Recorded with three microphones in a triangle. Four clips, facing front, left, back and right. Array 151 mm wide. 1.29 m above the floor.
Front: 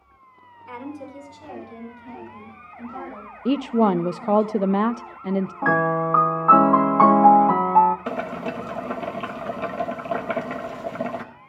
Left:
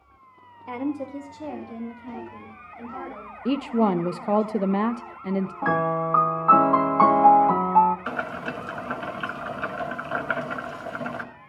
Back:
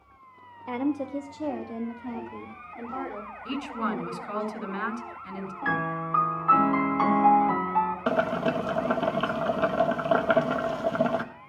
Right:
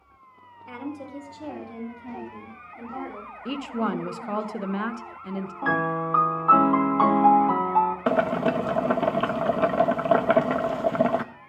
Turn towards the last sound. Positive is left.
turn(degrees=-105)